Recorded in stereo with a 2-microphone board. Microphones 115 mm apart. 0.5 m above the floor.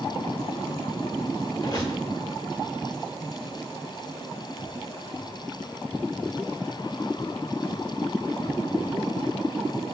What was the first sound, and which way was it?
A squeak, 35° left (ahead or behind).